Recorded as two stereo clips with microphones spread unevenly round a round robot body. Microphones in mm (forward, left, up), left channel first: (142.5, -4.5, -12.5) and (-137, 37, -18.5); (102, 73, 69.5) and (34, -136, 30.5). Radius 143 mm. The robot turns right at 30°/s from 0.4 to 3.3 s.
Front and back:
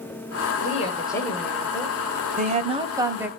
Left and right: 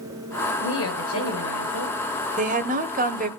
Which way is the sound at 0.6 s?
55° left.